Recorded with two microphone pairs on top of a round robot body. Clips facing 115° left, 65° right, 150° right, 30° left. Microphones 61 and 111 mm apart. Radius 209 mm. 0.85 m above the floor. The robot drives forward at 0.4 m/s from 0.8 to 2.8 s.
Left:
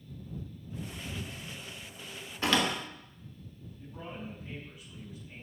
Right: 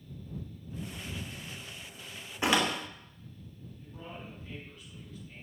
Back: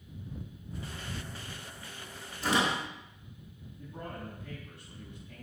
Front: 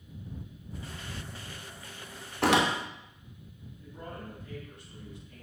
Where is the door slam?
10° left, 3 m.